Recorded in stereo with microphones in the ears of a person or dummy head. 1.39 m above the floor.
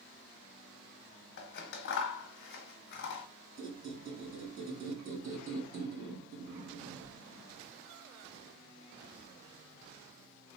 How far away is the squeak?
About 2 m.